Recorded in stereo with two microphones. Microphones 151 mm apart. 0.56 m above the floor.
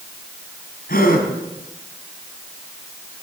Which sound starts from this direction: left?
A gasp, at 0.9 s.